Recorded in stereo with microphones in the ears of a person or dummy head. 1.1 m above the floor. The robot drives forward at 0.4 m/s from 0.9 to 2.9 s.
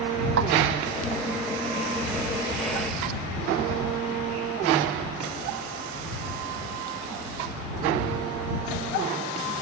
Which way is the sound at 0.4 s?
65° right (ahead or behind).